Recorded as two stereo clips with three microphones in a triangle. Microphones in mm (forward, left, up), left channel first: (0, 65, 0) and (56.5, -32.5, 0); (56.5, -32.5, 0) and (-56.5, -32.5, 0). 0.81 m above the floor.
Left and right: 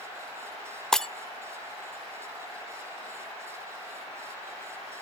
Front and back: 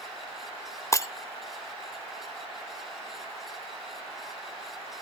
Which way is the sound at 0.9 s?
35° left.